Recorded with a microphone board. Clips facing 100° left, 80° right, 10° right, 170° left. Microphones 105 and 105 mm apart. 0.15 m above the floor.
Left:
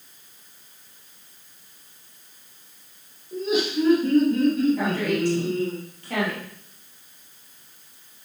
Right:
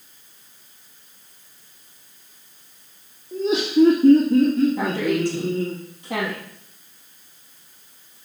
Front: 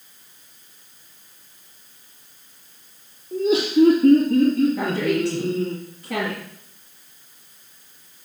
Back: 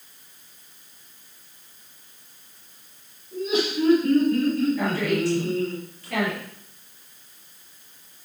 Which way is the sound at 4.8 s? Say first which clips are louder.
Right 2 dB, front 2 dB; 5° right.